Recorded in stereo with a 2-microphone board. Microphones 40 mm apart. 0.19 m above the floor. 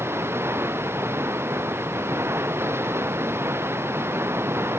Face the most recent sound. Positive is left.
turn(degrees=-85)